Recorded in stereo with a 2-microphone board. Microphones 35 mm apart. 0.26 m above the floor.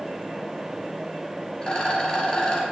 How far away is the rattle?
About 2.5 m.